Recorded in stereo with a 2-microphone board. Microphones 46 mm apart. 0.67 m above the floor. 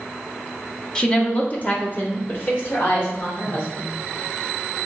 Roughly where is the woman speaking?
Centre.